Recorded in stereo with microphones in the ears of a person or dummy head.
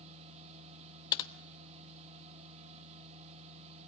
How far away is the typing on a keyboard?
About 1.2 m.